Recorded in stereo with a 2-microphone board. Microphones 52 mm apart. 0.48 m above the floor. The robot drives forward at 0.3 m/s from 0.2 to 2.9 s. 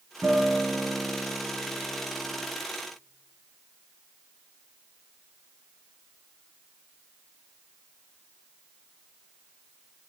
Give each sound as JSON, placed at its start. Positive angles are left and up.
{"t": 0.2, "sound": "a guitar", "side_deg": -30, "distance_m": 3.0}